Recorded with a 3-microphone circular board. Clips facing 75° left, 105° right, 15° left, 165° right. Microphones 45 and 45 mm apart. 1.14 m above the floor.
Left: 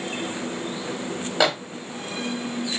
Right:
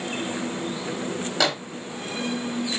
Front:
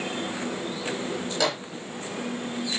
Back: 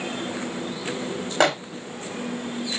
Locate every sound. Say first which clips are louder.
1.4 s a microwave: left 3 dB, back 7 dB; 145° left, 0.5 m